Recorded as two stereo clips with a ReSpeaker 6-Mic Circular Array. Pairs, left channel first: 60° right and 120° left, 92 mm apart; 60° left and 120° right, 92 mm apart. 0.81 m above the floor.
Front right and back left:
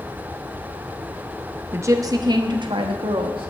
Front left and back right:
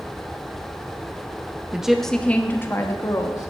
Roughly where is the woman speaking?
Behind.